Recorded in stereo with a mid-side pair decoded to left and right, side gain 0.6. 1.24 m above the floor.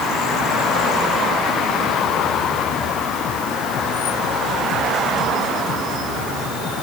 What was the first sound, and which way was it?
Only background noise.